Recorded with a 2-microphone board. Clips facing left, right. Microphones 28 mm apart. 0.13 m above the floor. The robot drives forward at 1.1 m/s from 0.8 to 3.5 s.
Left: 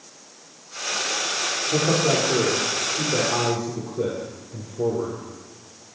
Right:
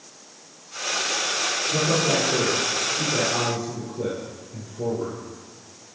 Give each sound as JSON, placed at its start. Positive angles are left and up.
{"t": 1.7, "sound": "a man speaking", "side_deg": 60, "distance_m": 6.5}